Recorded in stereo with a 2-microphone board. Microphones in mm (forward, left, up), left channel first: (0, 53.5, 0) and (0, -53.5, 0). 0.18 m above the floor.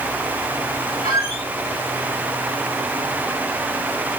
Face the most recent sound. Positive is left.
turn(degrees=60)  # may be behind; listen again after turning